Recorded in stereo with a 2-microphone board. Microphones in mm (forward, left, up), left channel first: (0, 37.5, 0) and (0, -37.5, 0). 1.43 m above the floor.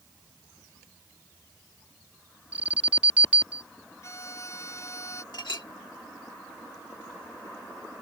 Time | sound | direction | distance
2.5 | an alarm | 20° right (ahead or behind) | ?
4.0 | a violin | 40° left (ahead or behind) | ?
5.3 | a clink | 70° left (ahead or behind) | ?